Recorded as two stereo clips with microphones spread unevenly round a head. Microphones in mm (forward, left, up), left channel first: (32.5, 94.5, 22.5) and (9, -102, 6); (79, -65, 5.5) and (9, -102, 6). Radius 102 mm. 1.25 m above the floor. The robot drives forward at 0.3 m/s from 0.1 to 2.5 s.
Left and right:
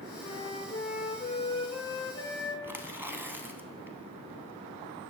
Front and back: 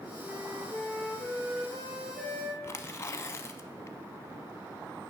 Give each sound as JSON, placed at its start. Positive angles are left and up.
{"t": 0.2, "sound": "a flute", "azimuth_deg": 130, "distance_m": 0.6}
{"t": 2.6, "sound": "tearing paper", "azimuth_deg": -25, "distance_m": 0.6}